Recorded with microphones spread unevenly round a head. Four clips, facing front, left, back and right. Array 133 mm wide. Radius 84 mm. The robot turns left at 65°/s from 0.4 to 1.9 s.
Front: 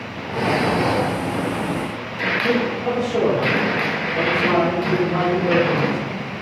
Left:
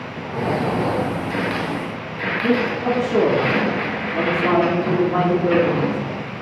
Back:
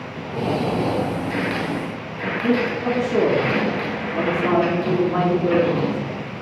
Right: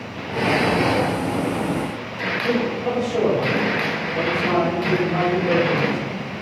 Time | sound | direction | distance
2.4 | a man speaking | 105° left | 2.5 m